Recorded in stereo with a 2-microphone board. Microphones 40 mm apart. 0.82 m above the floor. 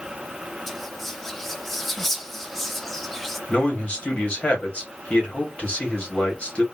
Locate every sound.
0.7 s whispering: 5° left (ahead or behind), 0.5 m
3.5 s a man speaking: 30° left (ahead or behind), 1.6 m